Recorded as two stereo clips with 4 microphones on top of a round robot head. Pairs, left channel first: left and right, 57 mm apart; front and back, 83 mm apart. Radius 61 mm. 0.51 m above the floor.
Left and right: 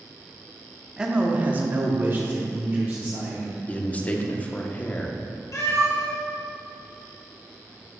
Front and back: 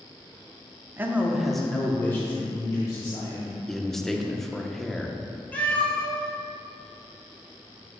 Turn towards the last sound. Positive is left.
turn(degrees=70)